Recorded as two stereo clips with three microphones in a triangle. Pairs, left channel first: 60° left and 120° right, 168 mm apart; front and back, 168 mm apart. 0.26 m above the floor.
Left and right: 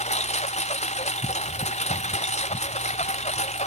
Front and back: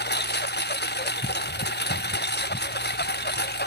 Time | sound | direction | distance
0.0 | a lawn mower | 10° left | ?